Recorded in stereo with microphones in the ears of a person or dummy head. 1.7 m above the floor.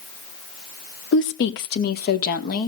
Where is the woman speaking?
60° left (ahead or behind), 1.2 m; by 2.7 s 45° left (ahead or behind), 2.0 m.